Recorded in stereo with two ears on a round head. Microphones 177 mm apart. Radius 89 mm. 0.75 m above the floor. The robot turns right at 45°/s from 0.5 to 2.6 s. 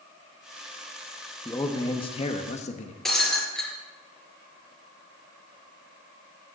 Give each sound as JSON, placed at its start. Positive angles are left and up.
{"t": 1.4, "sound": "a man speaking", "azimuth_deg": 20, "distance_m": 1.1}
{"t": 3.0, "sound": "breaking glass", "side_deg": 0, "distance_m": 4.5}